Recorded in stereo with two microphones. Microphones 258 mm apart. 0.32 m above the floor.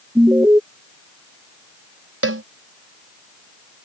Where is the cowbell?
60° right (ahead or behind).